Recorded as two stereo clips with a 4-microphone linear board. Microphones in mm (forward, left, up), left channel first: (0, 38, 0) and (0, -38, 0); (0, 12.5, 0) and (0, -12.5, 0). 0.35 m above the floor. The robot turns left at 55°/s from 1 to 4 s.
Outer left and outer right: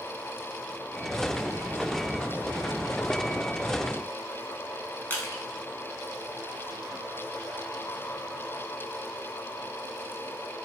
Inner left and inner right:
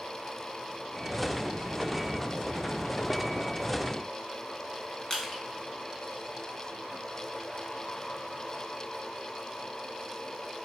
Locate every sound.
5.1 s crushing: 30° left (ahead or behind), 0.7 m